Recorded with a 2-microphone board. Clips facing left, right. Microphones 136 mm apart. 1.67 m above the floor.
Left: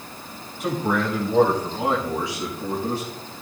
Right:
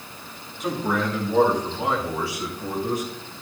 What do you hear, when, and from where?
0.6 s a man speaking: centre (ahead or behind), 7.5 m; by 3.1 s 30° left (ahead or behind), 6 m